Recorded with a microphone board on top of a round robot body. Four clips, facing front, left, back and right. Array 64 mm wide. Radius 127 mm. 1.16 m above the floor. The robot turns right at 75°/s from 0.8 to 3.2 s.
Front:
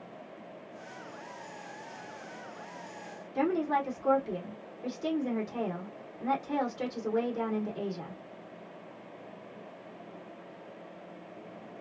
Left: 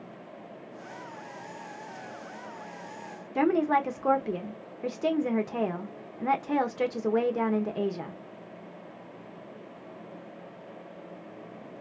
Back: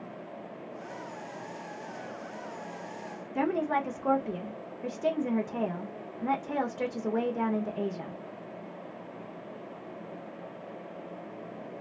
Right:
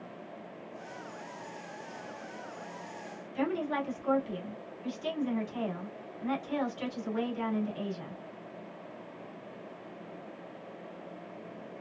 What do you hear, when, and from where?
3.4 s a woman speaking: 105° left, 1.0 m